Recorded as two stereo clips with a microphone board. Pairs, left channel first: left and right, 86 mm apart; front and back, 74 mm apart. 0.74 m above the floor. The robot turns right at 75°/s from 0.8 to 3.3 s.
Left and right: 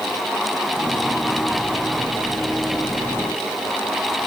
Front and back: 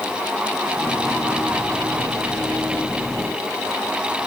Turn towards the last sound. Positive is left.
No sound to turn to.